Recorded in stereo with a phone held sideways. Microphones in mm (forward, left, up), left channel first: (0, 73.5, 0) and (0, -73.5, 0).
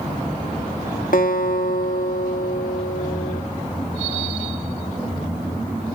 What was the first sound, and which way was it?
A guitar, 70° left (ahead or behind).